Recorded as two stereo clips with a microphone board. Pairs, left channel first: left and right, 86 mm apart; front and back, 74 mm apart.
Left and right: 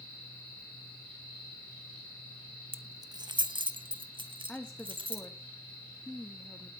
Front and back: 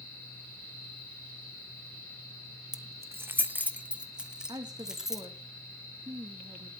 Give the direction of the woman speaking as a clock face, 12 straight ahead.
6 o'clock.